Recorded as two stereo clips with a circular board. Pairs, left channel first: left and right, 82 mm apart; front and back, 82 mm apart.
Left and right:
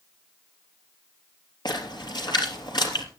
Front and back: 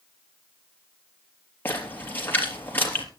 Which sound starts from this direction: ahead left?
A splash, at 1.6 s.